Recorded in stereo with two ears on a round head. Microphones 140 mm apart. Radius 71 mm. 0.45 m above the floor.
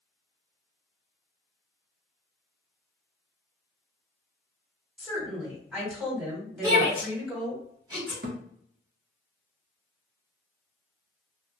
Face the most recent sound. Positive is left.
turn(degrees=-65)  # may be behind; listen again after turning